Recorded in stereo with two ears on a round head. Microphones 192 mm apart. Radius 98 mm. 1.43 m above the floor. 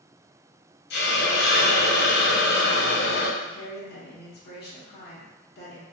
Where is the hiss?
45° left (ahead or behind), 0.6 m.